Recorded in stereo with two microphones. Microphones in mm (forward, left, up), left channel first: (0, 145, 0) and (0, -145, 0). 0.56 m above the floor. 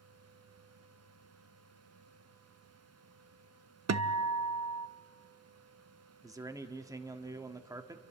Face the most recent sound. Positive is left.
turn(degrees=-10)  # may be behind; listen again after turning